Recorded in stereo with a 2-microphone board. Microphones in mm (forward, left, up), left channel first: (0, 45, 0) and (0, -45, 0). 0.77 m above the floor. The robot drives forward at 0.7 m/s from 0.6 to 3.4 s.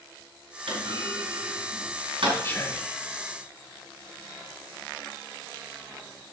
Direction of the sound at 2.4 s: 30° left (ahead or behind).